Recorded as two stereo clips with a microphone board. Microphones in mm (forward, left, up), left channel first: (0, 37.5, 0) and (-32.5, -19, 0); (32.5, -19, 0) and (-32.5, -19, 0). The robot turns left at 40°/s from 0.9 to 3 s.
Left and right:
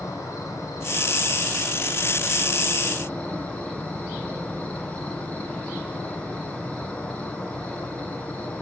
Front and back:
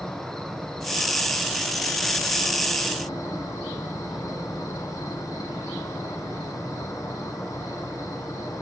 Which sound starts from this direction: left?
An insect, at 0.0 s.